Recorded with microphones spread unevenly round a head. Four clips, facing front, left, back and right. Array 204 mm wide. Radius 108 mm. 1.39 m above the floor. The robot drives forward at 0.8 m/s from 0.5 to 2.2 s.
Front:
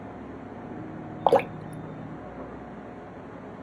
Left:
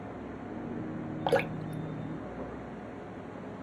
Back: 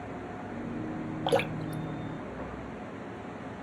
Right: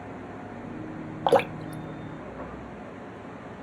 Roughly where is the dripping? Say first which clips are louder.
Right 7 dB, front 7 dB; ahead right.